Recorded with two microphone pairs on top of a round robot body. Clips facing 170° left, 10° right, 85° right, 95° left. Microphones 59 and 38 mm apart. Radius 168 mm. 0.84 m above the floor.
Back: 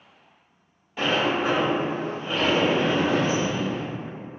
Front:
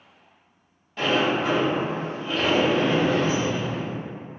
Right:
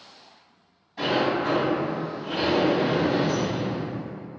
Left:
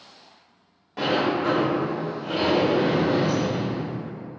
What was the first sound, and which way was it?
A sliding door, 90° left.